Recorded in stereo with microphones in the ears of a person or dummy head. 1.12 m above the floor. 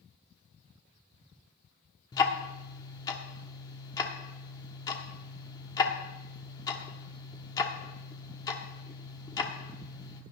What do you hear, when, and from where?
2.1 s ticking: 20° left (ahead or behind), 1.1 m